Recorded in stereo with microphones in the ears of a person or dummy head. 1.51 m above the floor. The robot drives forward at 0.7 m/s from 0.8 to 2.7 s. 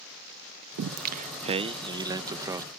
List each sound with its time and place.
0.8 s singing: 60° right (ahead or behind); by 2.7 s 15° right (ahead or behind)